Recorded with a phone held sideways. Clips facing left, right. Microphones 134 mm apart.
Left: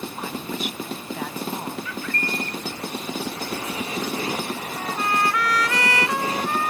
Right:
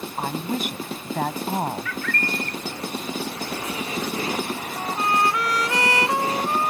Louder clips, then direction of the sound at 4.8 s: Right 2 dB; 25° right (ahead or behind).